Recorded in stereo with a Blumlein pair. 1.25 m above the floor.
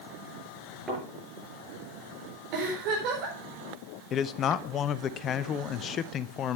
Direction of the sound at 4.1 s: 30° left.